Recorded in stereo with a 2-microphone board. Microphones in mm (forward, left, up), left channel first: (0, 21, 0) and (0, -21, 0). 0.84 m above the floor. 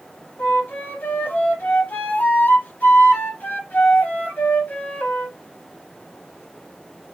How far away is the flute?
About 1.1 m.